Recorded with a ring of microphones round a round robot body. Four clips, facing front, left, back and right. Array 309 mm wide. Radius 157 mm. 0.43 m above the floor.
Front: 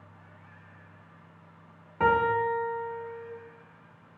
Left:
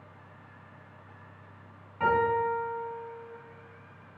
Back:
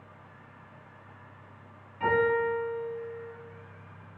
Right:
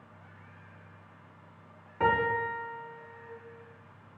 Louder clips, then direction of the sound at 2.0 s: Left 2 dB, front 1 dB; 20° right.